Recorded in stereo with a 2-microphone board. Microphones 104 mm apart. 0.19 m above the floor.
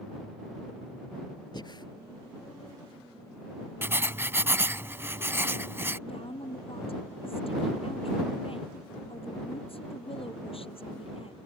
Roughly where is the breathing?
Left.